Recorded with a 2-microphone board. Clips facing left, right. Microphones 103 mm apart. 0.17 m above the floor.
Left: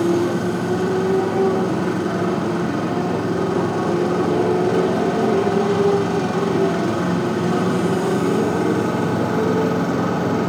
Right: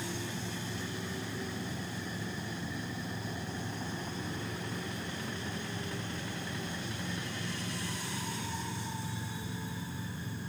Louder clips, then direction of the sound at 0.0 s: Left 22 dB; 80° left.